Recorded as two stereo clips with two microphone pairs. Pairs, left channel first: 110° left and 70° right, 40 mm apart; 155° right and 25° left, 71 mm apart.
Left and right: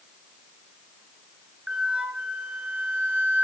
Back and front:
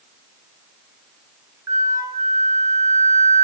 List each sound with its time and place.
1.7 s a flute: 10° right, 0.7 m